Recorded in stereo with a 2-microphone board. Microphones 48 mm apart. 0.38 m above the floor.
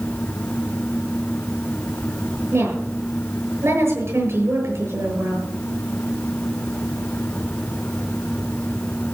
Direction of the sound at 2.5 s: 70° right (ahead or behind).